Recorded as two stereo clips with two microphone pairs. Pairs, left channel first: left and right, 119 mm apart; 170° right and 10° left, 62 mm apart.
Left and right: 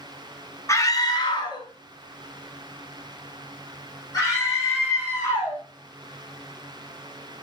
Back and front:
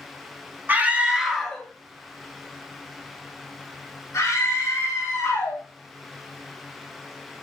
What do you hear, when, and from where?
0.7 s a scream: 45° left, 0.8 m; by 5.6 s 150° left, 3.5 m